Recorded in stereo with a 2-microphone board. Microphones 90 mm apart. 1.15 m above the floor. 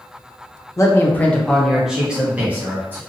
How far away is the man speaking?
About 0.6 m.